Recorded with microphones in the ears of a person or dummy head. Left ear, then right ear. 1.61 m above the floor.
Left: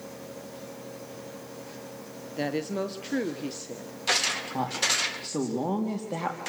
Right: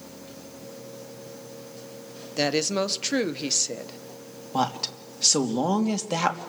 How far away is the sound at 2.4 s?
About 1.3 m.